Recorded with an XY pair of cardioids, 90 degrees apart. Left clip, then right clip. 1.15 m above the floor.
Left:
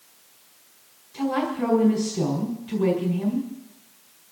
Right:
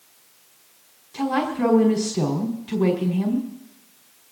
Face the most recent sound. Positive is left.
turn(degrees=-45)